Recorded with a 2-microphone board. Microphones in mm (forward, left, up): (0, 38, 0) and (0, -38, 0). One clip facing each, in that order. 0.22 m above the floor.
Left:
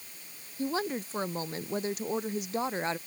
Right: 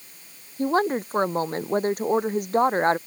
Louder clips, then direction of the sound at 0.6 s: Right 9 dB; 45° right (ahead or behind).